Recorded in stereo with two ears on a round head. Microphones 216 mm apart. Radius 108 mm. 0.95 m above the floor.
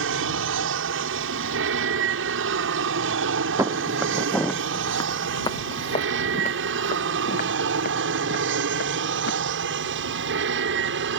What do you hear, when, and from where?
0.0 s an aircraft: 55° right (ahead or behind); by 11.2 s 50° right (ahead or behind)
3.6 s footsteps: 10° right (ahead or behind); by 9.3 s 45° left (ahead or behind)